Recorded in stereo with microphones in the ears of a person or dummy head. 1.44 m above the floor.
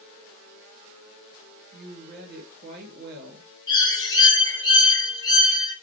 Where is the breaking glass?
No breaking glass in this recording.